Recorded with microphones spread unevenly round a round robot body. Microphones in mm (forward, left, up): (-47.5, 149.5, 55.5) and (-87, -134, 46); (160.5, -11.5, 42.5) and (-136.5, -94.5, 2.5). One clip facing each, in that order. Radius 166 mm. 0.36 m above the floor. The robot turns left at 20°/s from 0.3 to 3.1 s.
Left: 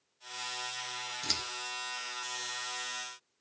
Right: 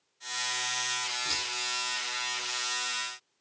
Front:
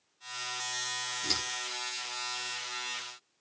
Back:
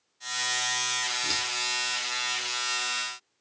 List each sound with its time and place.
1.2 s scissors: 105° left, 3.5 m; by 1.4 s 100° left, 3.5 m